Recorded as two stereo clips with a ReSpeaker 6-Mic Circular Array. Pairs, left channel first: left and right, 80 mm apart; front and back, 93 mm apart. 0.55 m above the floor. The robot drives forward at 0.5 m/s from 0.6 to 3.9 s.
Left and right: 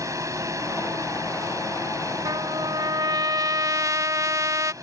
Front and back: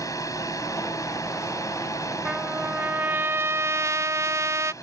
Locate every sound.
0.0 s a drone: 45° right; by 4.8 s 50° right
2.2 s a trumpet: 100° right; by 4.7 s 130° right